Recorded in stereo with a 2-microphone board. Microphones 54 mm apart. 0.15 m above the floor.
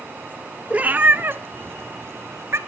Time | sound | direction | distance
0.7 | a cat meowing | 25° right (ahead or behind) | 0.9 m